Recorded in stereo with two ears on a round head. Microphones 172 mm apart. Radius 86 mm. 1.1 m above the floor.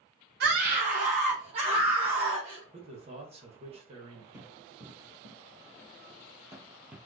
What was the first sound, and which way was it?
A scream, 55° right (ahead or behind).